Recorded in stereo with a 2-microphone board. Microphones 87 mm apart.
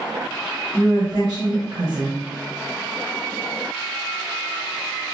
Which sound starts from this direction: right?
A woman speaking, at 0.7 s.